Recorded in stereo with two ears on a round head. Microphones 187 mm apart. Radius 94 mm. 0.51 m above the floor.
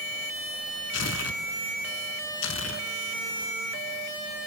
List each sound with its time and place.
0.9 s tearing paper: 65° left (ahead or behind), 1.2 m